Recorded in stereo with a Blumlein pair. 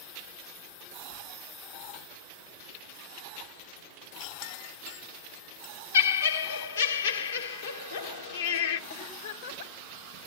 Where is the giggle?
65° left, 1.0 m.